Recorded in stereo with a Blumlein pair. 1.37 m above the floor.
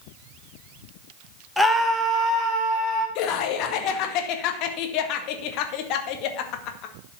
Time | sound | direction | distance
1.6 | a scream | straight ahead | 1.5 m
3.1 | laughter | 40° left | 1.8 m